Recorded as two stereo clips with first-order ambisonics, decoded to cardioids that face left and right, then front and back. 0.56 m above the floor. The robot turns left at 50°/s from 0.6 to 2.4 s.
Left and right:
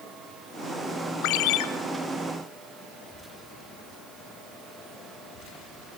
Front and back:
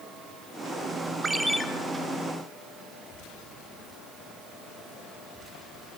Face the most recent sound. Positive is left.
turn(degrees=45)